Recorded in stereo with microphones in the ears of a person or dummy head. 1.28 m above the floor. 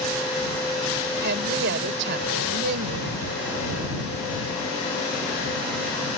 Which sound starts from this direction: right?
A woman speaking, at 1.2 s.